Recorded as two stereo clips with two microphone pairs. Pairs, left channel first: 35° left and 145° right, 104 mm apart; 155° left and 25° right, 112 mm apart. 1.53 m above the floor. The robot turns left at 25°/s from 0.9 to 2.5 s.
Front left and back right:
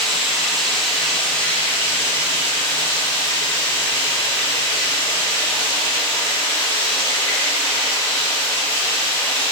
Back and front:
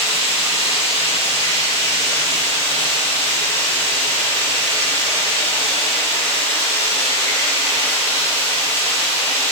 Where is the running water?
125° left, 1.7 m; by 9.5 s 85° left, 1.7 m.